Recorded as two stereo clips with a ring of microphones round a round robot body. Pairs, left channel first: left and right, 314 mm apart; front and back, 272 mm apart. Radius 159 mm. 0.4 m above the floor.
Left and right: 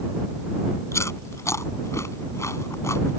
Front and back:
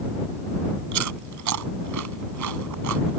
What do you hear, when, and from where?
0.9 s chewing: 170° left